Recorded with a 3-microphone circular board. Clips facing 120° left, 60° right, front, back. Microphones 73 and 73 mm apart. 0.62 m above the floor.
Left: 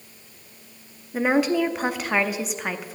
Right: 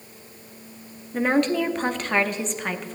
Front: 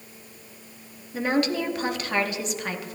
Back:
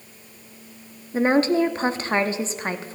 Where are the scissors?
No scissors in this recording.